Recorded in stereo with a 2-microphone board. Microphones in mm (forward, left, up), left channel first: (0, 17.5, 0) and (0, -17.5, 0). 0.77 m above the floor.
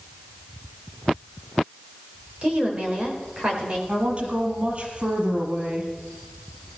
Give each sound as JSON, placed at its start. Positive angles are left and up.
{"t": 2.4, "sound": "a woman speaking", "side_deg": -40, "distance_m": 4.0}
{"t": 3.9, "sound": "a woman speaking", "side_deg": -40, "distance_m": 5.5}